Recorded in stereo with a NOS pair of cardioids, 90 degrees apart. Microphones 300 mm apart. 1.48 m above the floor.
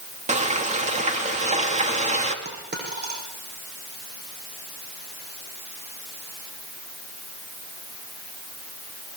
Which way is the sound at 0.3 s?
25° right.